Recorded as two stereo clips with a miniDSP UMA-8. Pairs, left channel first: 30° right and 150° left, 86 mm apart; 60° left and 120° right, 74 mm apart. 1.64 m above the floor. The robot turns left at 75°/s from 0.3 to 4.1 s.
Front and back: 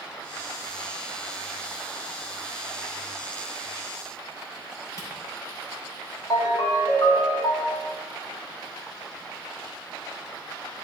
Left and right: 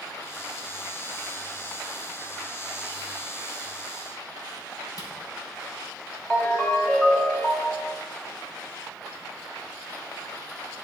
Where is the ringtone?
20° right, 1.9 m.